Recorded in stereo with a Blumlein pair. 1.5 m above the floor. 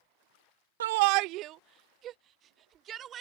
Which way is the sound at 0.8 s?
60° right.